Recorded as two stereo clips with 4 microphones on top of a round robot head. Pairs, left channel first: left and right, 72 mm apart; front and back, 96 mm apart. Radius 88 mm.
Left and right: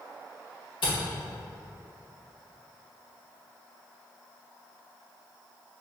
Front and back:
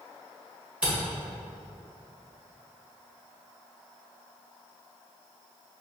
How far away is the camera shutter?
About 1.6 m.